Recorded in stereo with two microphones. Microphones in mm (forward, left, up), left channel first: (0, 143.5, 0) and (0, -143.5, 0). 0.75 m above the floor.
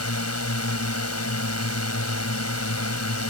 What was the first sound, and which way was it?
A drone, 60° left (ahead or behind).